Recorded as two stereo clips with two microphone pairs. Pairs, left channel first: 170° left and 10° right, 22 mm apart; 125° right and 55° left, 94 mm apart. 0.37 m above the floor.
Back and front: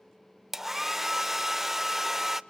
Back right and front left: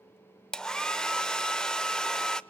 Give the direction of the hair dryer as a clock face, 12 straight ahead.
2 o'clock.